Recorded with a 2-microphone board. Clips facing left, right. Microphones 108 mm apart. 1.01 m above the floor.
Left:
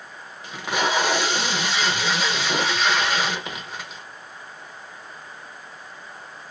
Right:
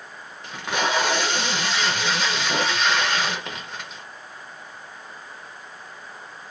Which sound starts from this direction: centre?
Tape being pulled, at 0.4 s.